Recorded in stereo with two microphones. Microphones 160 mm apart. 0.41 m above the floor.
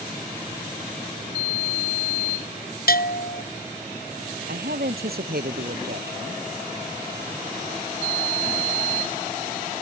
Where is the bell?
75° left (ahead or behind).